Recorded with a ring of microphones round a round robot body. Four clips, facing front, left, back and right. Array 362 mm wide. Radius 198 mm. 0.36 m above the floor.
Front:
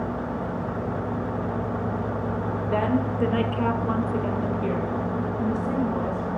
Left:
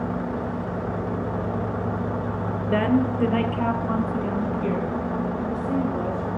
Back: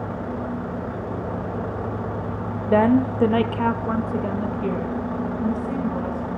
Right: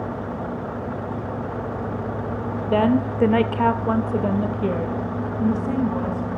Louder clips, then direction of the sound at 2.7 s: Right 2 dB, back 8 dB; 170° right.